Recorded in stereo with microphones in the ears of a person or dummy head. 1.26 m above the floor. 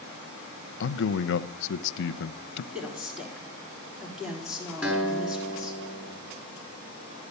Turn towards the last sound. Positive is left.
turn(degrees=-5)  # may be behind; listen again after turning